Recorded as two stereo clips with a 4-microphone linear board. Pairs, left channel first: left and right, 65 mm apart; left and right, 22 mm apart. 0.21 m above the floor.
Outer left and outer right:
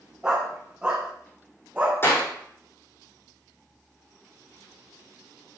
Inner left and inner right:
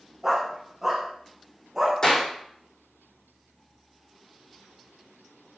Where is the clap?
35° left (ahead or behind), 6.5 m.